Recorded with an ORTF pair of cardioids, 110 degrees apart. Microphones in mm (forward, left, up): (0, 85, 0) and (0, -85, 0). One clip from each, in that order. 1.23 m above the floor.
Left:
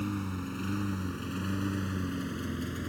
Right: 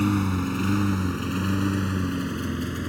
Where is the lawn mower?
65° right; by 2.9 s 40° right.